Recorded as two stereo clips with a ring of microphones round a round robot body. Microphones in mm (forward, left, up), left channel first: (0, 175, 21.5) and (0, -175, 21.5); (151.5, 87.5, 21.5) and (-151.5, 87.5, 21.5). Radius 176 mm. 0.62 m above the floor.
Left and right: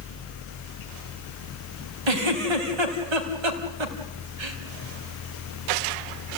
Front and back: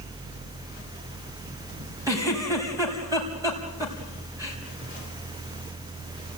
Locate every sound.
2.1 s a giggle: 100° right, 4 m